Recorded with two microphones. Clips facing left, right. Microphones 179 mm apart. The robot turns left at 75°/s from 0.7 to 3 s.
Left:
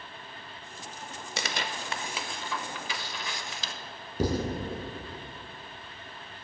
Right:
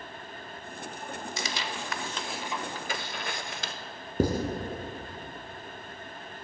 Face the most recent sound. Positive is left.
turn(degrees=-50)  # may be behind; listen again after turning